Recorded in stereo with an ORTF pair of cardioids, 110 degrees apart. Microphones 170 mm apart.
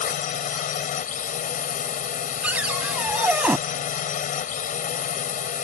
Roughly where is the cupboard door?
Ahead.